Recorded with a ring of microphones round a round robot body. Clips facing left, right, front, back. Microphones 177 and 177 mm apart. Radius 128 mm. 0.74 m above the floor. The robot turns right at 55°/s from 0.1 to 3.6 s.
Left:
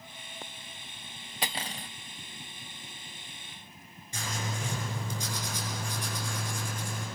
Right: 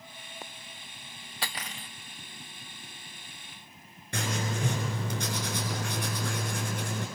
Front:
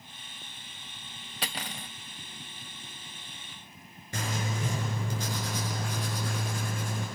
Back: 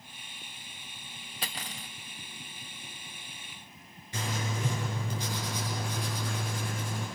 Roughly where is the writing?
Ahead right.